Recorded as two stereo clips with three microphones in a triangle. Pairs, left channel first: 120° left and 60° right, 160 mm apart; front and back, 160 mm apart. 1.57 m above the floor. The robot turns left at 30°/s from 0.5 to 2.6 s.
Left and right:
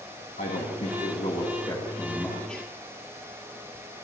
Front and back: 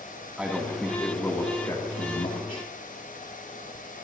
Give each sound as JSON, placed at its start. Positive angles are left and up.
{"t": 0.4, "sound": "a man speaking", "azimuth_deg": 95, "distance_m": 2.5}